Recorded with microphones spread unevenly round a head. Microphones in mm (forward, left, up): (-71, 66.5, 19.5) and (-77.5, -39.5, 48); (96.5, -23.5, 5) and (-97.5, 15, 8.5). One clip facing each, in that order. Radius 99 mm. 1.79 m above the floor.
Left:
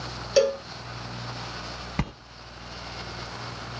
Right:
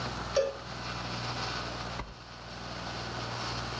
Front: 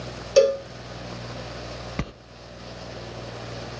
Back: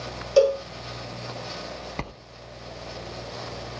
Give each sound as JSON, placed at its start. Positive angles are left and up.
{"t": 0.4, "sound": "a cowbell", "azimuth_deg": 50, "distance_m": 0.8}
{"t": 2.0, "sound": "a sliding door", "azimuth_deg": 55, "distance_m": 0.7}